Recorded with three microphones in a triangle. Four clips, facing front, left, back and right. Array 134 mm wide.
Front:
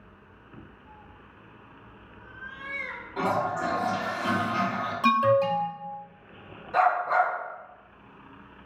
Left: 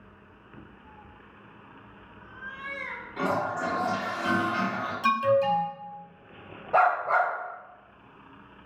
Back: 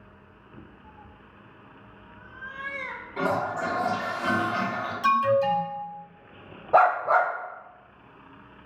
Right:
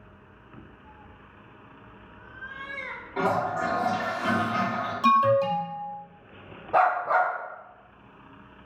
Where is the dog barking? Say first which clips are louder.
Right 1 dB, back 3 dB; 175° left, 0.8 m.